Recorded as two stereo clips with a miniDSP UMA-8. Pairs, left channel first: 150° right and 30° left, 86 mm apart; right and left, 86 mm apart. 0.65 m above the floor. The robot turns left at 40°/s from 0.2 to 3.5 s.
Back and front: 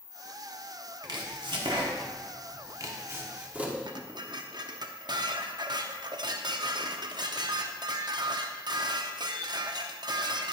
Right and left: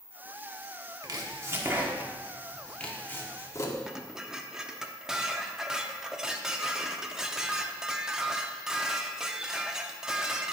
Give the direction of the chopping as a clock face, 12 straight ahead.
10 o'clock.